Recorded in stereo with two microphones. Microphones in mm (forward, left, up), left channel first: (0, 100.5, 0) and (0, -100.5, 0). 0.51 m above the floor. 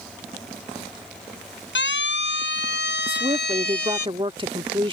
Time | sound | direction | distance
1.8 | a siren | 65° left (ahead or behind) | ?
3.1 | a woman speaking | 25° right (ahead or behind) | ?